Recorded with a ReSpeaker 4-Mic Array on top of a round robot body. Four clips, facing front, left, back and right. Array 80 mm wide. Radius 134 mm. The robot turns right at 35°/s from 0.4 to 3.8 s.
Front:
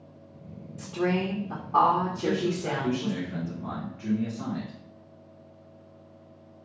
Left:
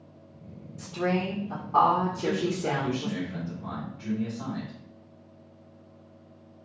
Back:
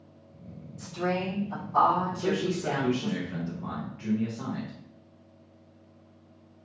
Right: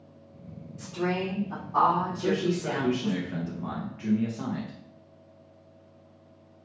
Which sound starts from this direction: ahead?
A woman speaking, at 0.8 s.